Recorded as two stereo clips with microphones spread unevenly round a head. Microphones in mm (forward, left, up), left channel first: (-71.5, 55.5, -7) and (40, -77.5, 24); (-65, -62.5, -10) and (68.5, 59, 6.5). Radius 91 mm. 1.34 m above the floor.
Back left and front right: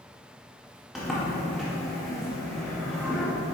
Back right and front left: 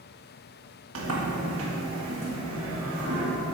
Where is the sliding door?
40° left, 2 m.